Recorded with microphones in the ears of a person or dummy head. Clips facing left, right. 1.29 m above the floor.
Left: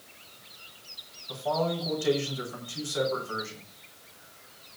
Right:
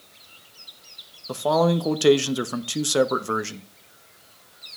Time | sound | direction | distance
1.3 | a man speaking | 70° right (ahead or behind) | 0.9 m